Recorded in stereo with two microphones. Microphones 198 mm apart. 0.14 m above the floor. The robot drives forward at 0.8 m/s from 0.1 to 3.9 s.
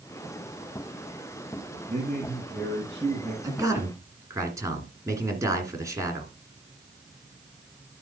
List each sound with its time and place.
1.9 s a man speaking: 35° right (ahead or behind), 3.5 m; by 3.3 s 25° right (ahead or behind), 4.5 m
3.4 s a man speaking: 15° right (ahead or behind), 1.8 m